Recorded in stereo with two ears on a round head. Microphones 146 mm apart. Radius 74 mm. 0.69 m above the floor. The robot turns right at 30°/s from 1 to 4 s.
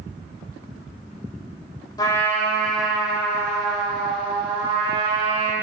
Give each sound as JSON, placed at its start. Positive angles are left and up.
{"t": 2.0, "sound": "a trumpet", "azimuth_deg": 155, "distance_m": 2.0}